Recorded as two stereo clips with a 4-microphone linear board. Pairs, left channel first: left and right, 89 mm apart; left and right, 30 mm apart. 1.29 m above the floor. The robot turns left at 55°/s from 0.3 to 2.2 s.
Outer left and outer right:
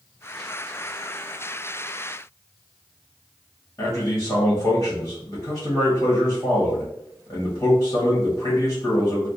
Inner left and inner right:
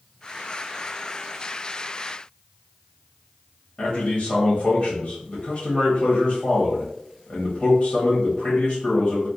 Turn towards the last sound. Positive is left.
turn(degrees=50)  # may be behind; listen again after turning